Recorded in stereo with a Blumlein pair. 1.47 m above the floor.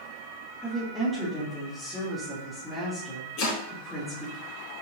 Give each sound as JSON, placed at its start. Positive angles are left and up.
{"t": 0.6, "sound": "a woman speaking", "azimuth_deg": 0, "distance_m": 3.0}
{"t": 3.4, "sound": "chopping", "azimuth_deg": 45, "distance_m": 4.0}